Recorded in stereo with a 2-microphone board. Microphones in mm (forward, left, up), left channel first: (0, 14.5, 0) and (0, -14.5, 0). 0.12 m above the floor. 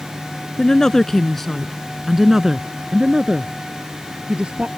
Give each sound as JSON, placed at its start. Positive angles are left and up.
{"t": 0.6, "sound": "a woman speaking", "side_deg": 20}